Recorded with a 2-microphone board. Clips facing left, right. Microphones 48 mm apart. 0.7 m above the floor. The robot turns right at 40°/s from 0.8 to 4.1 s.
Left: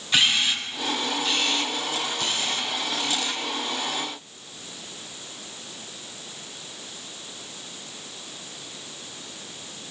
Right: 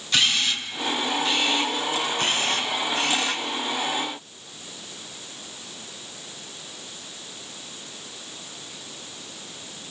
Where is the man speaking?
I don't hear a man speaking.